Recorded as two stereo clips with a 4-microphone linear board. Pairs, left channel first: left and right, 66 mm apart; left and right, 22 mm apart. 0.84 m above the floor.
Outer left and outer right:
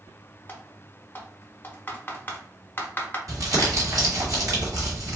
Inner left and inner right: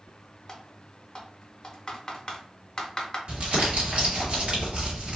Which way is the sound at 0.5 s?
30° left (ahead or behind).